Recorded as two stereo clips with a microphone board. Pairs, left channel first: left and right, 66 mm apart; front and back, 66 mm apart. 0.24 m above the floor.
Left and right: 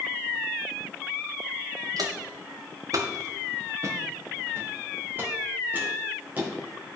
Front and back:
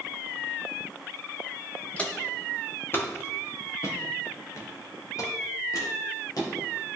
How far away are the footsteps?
About 1.9 m.